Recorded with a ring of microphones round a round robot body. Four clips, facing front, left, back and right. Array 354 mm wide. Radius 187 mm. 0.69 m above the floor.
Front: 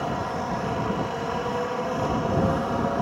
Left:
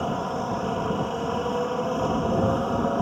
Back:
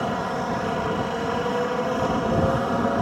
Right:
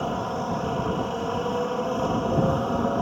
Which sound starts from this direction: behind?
A helicopter, at 0.0 s.